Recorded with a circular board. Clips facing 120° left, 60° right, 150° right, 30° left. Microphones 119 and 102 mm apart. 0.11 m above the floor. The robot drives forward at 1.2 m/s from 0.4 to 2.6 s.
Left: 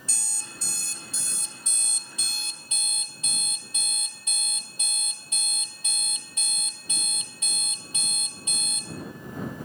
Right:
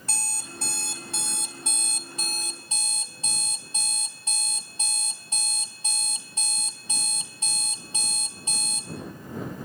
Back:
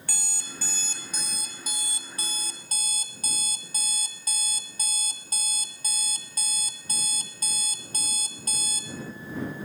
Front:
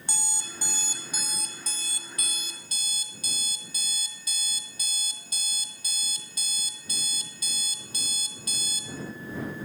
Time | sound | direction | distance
0.1 | an alarm clock | 35° right | 2.5 m